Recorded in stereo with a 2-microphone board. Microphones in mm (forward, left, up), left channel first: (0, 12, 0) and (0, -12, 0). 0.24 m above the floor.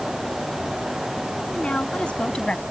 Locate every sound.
1.5 s a woman speaking: 60° left (ahead or behind); by 2.6 s 45° left (ahead or behind)